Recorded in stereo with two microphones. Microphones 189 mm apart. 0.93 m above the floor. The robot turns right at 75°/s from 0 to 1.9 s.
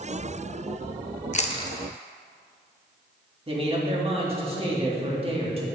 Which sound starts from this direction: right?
A man speaking, at 3.5 s.